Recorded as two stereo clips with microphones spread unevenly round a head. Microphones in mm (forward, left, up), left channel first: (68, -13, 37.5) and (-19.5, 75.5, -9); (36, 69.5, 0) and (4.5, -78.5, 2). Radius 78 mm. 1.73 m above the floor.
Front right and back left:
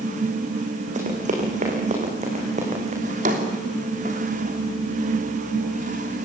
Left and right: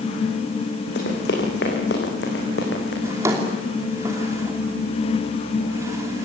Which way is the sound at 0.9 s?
105° left.